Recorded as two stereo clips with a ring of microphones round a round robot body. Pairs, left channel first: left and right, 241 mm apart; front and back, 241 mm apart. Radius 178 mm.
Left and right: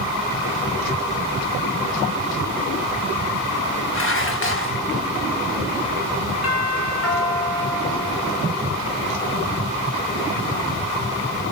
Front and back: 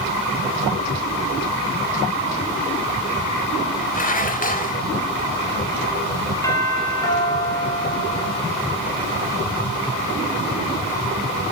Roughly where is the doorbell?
Left.